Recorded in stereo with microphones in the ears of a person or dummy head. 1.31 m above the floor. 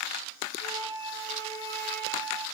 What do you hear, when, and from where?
0.6 s a flute: 65° left (ahead or behind), 1.6 m